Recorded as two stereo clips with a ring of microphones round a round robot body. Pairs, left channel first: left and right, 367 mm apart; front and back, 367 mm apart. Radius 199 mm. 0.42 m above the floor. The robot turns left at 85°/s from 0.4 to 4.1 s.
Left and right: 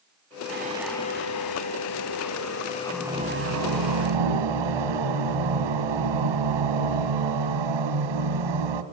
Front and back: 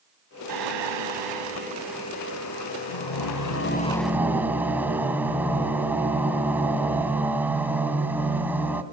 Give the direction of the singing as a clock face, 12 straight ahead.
5 o'clock.